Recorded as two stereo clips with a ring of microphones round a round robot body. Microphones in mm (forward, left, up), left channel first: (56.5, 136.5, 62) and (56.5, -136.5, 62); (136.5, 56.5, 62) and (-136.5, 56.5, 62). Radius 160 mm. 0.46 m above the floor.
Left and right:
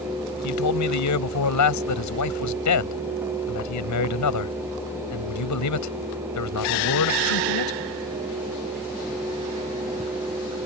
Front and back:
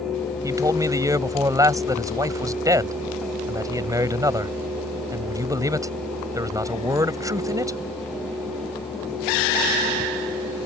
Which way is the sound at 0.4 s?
105° left.